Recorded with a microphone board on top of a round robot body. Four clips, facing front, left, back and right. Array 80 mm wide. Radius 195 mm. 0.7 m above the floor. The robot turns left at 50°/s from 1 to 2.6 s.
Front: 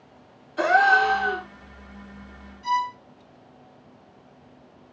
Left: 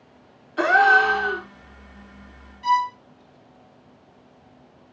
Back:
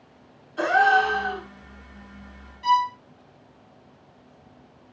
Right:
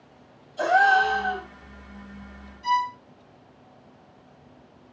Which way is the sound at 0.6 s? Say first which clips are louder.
Left 3 dB, front 1 dB; 85° left.